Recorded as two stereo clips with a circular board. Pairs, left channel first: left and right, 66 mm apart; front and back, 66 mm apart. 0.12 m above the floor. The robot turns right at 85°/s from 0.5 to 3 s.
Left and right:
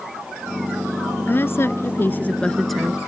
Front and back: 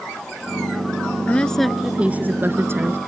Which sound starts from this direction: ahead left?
A woman speaking, at 1.2 s.